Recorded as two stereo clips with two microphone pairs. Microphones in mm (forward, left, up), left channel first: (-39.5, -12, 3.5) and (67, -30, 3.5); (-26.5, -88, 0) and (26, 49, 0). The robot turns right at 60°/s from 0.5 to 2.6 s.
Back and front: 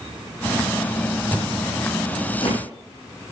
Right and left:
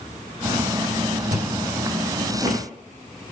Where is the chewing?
65° left, 7 m; by 2.6 s 140° left, 7 m.